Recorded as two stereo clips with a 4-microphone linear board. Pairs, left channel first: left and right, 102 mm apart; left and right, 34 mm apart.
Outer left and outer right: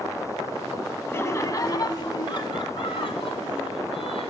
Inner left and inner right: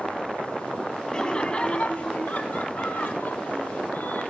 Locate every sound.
1.1 s laughter: 25° left (ahead or behind), 1.6 m; by 4.3 s 70° left (ahead or behind), 3.5 m